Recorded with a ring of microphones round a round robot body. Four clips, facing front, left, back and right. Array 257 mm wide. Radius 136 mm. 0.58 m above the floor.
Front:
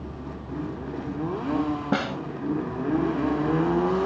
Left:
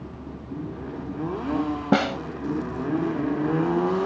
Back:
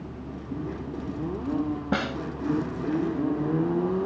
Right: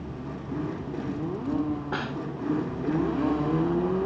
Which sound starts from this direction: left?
A snare drum, at 1.9 s.